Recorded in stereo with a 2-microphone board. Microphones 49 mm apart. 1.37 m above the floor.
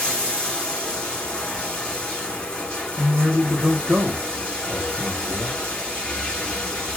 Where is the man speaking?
15° right (ahead or behind), 0.8 m.